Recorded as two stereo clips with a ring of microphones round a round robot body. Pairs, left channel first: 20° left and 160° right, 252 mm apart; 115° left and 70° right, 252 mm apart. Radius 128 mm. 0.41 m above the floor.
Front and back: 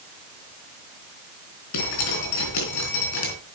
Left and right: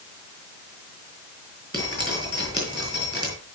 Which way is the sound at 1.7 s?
5° left.